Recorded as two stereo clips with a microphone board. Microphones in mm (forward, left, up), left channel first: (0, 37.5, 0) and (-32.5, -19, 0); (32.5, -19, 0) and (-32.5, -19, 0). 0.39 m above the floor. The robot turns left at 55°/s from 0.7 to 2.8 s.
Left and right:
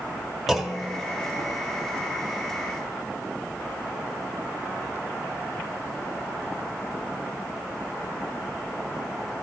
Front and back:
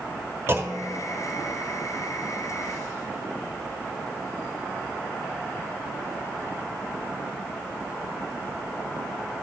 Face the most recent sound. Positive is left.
turn(degrees=40)